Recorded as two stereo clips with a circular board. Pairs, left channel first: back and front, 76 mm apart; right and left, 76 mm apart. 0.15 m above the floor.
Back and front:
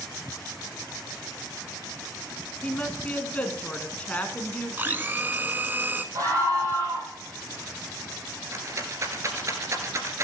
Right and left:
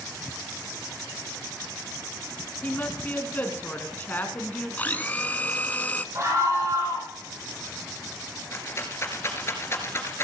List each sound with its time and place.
2.6 s a woman speaking: 130° right, 1.5 m
4.8 s a blender: 40° right, 0.8 m
6.2 s a scream: 45° left, 5.5 m
8.5 s a rattle: 40° right, 1.8 m